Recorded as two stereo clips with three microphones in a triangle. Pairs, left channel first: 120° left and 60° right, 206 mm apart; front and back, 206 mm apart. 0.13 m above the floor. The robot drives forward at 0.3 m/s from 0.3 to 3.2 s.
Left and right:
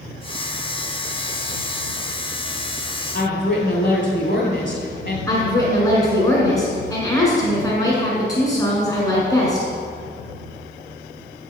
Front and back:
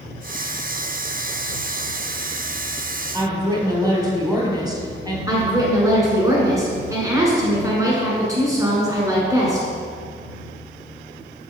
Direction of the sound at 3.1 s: 110° left.